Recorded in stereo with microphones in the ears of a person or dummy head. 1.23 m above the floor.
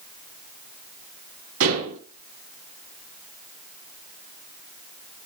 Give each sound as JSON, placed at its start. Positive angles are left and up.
{"t": 1.6, "sound": "dishes clattering", "side_deg": -80, "distance_m": 7.0}